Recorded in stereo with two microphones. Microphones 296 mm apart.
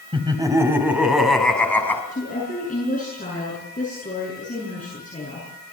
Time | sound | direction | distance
0.1 | laughter | 15° right (ahead or behind) | 3.5 m
2.1 | a woman speaking | 25° left (ahead or behind) | 7 m